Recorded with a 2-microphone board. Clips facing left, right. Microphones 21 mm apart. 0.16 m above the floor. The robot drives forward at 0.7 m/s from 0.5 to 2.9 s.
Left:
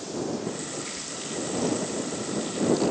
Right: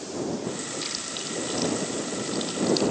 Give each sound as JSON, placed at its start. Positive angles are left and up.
{"t": 0.8, "sound": "chewing", "side_deg": -75, "distance_m": 7.5}